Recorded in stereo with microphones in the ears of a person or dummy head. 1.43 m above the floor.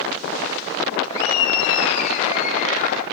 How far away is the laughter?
About 2 m.